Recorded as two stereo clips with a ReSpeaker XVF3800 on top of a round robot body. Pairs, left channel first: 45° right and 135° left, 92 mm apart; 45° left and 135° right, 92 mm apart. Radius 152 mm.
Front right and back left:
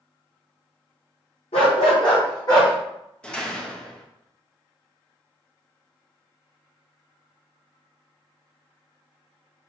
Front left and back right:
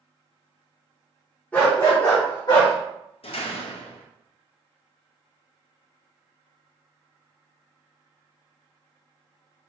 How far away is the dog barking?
About 0.8 m.